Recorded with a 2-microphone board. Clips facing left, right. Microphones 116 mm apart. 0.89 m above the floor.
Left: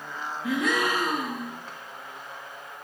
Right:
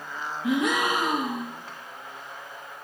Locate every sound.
0.4 s a gasp: 20° right (ahead or behind), 1.6 m